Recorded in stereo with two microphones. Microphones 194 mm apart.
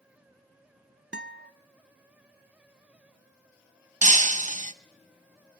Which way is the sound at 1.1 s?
60° right (ahead or behind).